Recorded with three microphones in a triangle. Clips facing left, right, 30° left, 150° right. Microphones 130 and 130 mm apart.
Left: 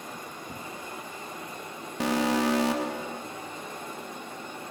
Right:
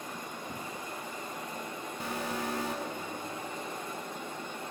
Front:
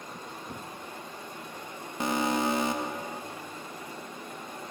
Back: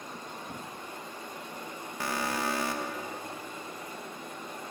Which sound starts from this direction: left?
An alarm, at 2.0 s.